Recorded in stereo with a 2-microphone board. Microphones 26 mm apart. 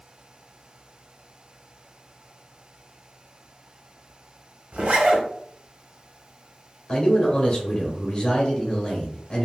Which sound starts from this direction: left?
A man speaking, at 6.9 s.